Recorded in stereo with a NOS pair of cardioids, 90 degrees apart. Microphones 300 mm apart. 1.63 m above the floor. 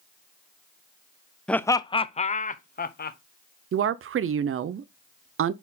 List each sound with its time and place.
1.5 s laughter: 5° left, 0.5 m; by 3.2 s 35° left, 1.3 m
3.7 s a woman speaking: 45° right, 0.7 m